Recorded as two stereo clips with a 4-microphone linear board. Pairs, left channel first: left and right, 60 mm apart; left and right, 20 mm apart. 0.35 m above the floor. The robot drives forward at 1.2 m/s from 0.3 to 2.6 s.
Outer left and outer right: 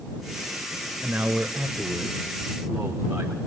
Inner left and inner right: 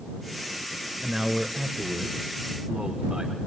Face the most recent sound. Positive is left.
turn(degrees=-10)  # may be behind; listen again after turning